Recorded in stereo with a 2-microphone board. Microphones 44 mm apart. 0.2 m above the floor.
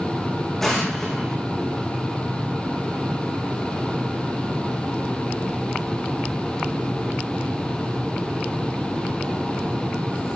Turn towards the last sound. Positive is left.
turn(degrees=5)  # may be behind; listen again after turning